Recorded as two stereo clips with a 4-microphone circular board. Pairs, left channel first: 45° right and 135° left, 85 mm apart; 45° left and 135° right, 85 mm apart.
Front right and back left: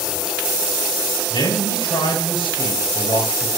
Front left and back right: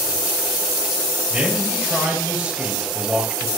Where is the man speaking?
55° right, 6.5 m.